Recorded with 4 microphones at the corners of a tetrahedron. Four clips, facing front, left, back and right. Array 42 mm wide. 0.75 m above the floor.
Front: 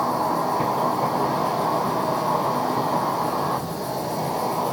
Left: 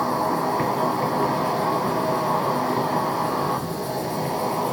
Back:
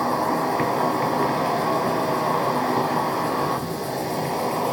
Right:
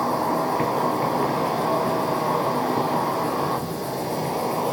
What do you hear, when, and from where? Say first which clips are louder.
0.0 s an insect: even, even; straight behind, 2.5 m